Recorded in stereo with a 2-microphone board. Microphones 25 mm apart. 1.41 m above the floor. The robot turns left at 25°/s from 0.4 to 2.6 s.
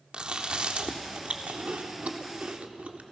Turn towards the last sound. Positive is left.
turn(degrees=-60)  # may be behind; listen again after turning